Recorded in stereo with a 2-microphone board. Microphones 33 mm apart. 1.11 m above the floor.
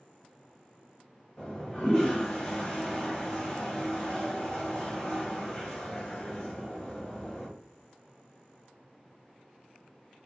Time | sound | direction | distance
1.4 | a toilet flushing | 25° left (ahead or behind) | 1.2 m